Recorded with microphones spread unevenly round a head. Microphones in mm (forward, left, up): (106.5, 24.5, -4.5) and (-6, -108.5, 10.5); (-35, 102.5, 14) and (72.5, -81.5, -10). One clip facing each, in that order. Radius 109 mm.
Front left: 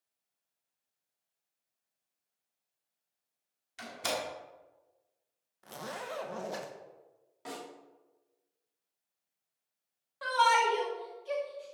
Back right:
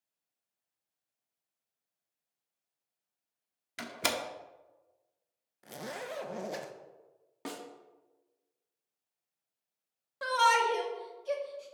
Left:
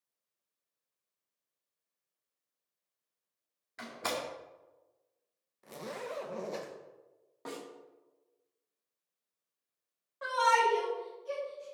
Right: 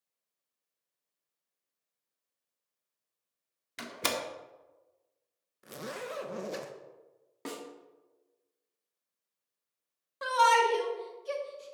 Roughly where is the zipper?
Right.